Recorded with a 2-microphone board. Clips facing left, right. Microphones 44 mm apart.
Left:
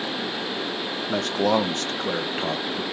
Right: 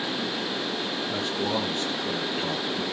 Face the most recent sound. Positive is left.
turn(degrees=10)  # may be behind; listen again after turning